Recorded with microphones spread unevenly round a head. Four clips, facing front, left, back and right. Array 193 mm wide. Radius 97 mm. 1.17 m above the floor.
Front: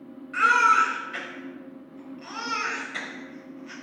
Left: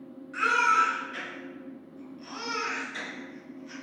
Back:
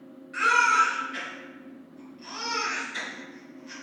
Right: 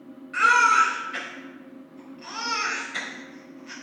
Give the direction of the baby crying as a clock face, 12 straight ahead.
2 o'clock.